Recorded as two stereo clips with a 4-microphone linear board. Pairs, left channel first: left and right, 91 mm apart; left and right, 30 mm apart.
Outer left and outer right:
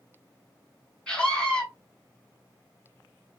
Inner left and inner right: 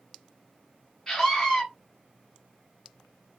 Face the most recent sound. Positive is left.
turn(degrees=10)  # may be behind; listen again after turning